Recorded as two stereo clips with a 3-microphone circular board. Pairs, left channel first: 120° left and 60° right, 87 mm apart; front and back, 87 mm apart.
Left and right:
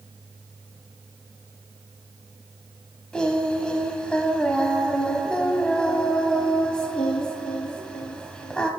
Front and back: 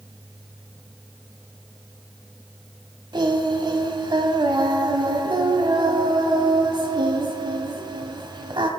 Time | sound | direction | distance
3.1 | singing | 160° right | 1.2 m